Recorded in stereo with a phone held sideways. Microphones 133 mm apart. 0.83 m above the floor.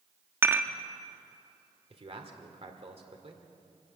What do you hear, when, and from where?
0.4 s dishes clattering: 20° right (ahead or behind), 0.9 m
1.9 s a man speaking: 50° right (ahead or behind), 2.5 m